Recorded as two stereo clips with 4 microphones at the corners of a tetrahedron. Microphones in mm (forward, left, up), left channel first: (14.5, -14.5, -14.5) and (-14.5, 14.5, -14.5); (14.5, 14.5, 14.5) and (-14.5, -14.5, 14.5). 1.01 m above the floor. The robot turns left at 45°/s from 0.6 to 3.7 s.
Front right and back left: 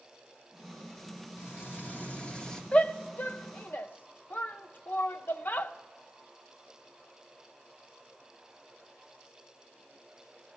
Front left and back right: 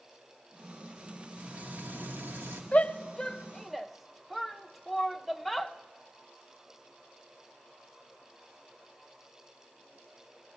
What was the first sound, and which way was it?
Frying, 70° right.